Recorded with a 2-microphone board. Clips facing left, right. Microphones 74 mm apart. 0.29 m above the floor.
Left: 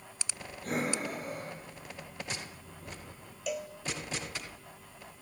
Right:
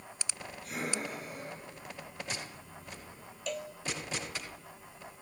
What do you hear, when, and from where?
0.6 s breathing: 45° left (ahead or behind), 9 m
3.5 s a cowbell: 10° left (ahead or behind), 1.3 m